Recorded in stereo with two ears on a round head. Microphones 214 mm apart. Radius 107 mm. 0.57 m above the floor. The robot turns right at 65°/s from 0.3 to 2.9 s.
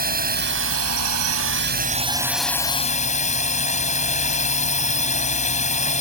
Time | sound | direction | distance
0.0 | a drone | 140° right | ?